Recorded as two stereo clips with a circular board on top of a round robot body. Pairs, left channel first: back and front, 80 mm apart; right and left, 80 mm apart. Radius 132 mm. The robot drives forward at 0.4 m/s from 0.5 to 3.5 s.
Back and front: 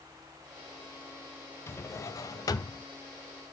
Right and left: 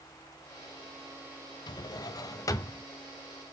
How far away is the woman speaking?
I don't hear a woman speaking.